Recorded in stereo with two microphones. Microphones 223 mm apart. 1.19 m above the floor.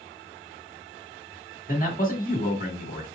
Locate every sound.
1.7 s a man speaking: 35° left (ahead or behind), 1.4 m